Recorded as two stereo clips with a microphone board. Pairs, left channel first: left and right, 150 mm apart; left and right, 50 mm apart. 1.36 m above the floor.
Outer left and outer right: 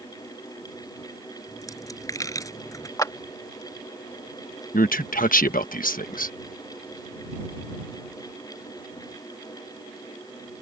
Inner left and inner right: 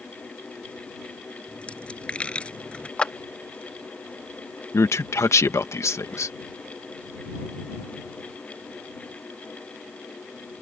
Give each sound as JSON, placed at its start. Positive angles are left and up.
{"t": 1.5, "sound": "a dropped coin", "side_deg": 20}
{"t": 3.0, "sound": "a clap", "side_deg": 25}
{"t": 4.7, "sound": "a man speaking", "side_deg": 70}